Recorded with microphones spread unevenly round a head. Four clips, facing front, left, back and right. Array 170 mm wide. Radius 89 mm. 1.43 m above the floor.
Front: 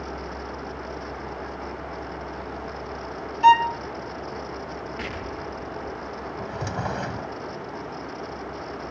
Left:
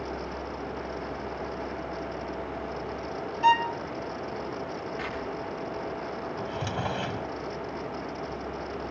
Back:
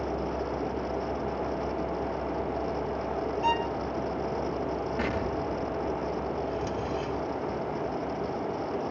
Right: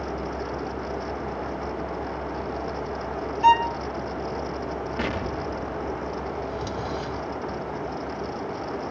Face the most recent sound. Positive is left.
turn(degrees=25)